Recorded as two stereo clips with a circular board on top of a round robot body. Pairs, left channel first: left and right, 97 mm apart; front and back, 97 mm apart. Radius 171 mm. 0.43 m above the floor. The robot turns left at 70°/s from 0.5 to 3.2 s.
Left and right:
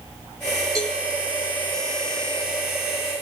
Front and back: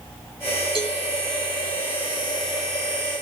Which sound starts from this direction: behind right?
A cowbell, at 0.8 s.